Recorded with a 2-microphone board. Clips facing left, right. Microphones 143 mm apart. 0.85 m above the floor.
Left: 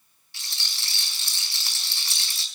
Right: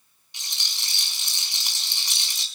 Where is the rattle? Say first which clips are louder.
Even; 20° right (ahead or behind), 4.5 m.